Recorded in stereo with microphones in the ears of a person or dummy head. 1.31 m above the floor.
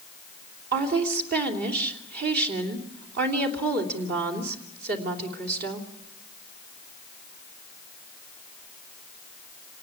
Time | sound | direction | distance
0.7 | a woman speaking | 60° right (ahead or behind) | 3 m